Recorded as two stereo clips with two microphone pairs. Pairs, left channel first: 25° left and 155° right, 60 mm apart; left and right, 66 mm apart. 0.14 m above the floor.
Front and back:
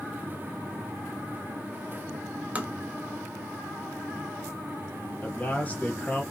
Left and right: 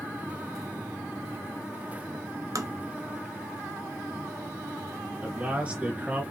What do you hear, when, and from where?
2.5 s tapping: 95° right, 0.7 m
5.2 s a man speaking: 25° right, 1.8 m